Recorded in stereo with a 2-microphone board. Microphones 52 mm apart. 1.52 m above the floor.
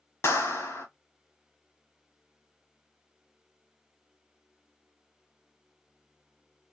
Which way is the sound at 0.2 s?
55° left (ahead or behind).